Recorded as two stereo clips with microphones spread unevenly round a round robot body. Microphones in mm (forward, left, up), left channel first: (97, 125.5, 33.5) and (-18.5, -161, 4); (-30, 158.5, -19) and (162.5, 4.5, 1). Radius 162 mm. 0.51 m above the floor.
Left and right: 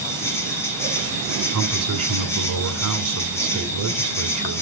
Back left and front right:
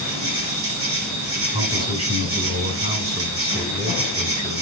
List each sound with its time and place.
0.0 s an insect: 15° right, 9 m
1.5 s a man speaking: 110° right, 2 m